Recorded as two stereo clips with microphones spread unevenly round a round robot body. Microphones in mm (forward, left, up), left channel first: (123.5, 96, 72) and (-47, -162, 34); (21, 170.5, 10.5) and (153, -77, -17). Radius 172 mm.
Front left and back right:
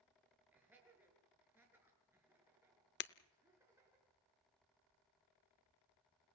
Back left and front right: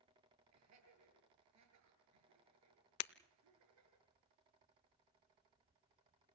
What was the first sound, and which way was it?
Laughter, 40° right.